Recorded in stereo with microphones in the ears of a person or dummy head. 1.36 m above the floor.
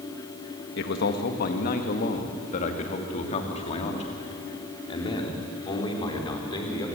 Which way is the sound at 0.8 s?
60° left (ahead or behind).